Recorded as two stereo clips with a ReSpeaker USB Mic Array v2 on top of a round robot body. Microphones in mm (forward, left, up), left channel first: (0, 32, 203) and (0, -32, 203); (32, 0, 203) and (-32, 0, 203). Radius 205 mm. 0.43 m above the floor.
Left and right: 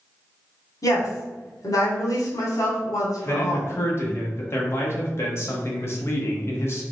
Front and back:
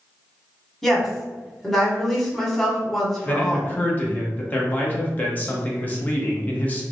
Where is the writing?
No writing in this recording.